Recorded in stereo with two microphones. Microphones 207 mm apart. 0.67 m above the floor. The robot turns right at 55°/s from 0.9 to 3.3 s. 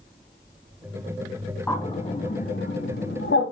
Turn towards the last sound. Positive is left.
turn(degrees=80)